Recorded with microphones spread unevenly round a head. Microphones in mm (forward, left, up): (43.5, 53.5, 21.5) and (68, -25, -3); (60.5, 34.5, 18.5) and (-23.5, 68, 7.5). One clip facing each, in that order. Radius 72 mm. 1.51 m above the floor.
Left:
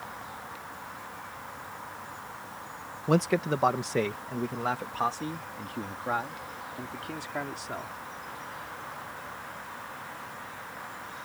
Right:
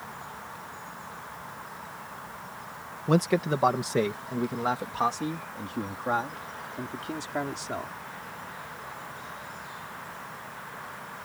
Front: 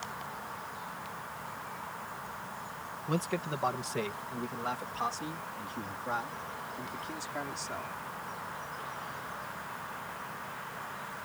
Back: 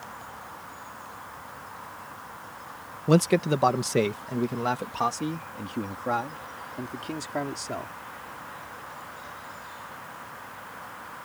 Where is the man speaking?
165° right; by 7.9 s 150° right.